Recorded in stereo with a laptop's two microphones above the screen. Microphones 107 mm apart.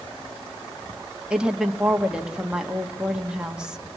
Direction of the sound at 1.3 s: 10° right (ahead or behind).